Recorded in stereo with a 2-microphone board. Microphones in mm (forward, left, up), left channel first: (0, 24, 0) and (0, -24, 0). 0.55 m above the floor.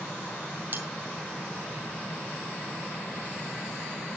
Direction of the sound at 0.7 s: 40° right (ahead or behind).